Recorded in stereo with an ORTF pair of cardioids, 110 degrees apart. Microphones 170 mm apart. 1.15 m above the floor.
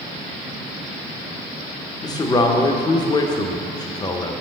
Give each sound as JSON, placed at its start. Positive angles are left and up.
{"t": 2.0, "sound": "a man speaking", "azimuth_deg": 25, "distance_m": 0.8}